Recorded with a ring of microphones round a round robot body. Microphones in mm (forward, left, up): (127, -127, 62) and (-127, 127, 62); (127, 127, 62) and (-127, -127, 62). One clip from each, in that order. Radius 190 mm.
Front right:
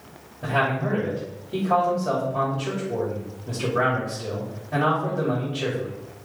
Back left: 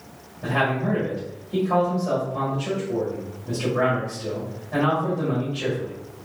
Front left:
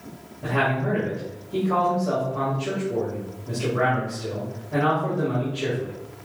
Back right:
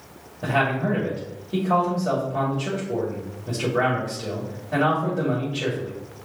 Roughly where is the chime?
I don't hear a chime.